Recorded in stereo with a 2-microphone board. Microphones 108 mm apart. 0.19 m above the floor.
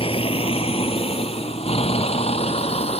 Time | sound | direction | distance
0.0 | a vehicle | 65° left (ahead or behind) | ?